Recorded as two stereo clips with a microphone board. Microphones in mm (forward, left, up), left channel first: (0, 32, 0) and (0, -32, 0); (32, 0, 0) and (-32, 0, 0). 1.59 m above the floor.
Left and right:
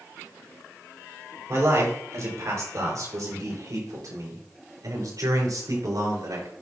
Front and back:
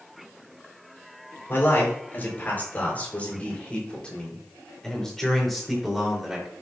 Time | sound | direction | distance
1.5 | a man speaking | 50° right | 6 m